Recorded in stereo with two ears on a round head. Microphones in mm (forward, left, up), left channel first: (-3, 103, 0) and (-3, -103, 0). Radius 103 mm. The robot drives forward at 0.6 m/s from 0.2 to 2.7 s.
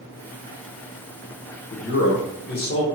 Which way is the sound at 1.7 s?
50° left (ahead or behind).